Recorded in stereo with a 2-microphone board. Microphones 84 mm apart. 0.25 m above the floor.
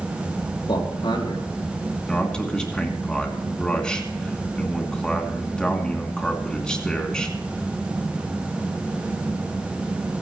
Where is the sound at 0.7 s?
65° left (ahead or behind), 3.5 m.